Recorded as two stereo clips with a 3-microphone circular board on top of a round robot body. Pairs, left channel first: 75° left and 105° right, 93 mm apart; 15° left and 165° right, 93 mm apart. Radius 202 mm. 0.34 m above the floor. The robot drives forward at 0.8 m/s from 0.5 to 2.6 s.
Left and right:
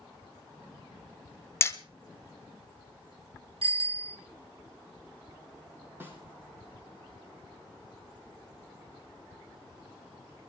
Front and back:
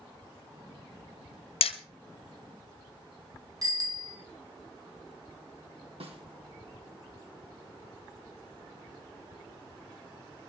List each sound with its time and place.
1.6 s hammering: 10° left, 1.6 m
3.6 s a bicycle bell: 115° right, 2.5 m
6.0 s a snare drum: 175° right, 3.5 m